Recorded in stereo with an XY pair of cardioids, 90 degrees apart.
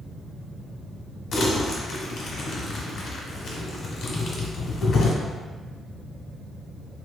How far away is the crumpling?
About 1.0 m.